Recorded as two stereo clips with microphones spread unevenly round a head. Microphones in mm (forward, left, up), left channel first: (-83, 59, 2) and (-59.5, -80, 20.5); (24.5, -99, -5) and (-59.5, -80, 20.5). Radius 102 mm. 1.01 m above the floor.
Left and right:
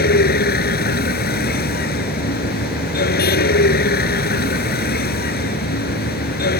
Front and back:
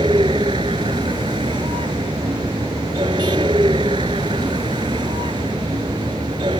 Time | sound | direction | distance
0.0 | a vehicle | 105° left | ?